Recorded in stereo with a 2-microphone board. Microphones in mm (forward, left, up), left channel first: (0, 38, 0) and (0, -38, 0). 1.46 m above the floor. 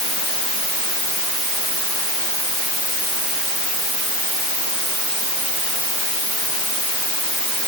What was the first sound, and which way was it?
Only background noise.